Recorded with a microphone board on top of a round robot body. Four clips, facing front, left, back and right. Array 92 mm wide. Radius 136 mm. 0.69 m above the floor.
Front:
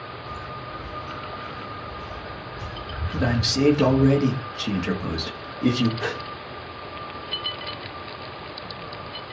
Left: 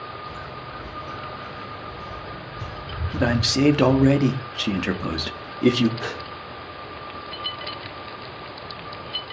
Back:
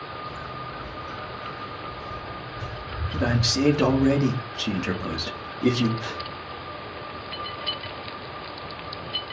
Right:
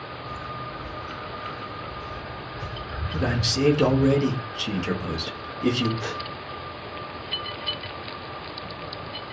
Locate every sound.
0.3 s footsteps: 75° left, 5 m; by 4.1 s 65° left, 2.5 m
3.1 s a man speaking: 90° left, 2 m
6.0 s a gasp: 40° left, 2 m